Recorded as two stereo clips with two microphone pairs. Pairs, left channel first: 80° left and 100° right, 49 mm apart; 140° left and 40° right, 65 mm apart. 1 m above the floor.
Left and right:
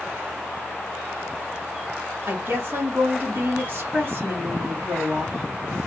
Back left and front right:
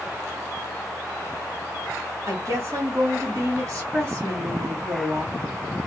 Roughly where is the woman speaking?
Ahead right.